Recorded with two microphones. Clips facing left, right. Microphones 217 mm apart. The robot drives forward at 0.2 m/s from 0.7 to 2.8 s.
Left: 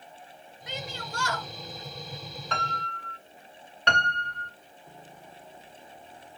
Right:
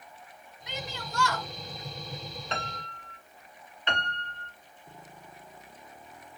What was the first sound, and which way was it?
A shout, 50° left (ahead or behind).